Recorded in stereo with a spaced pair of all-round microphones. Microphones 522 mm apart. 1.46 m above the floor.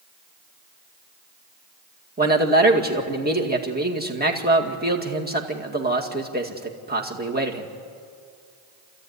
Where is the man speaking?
15° right (ahead or behind), 2 m.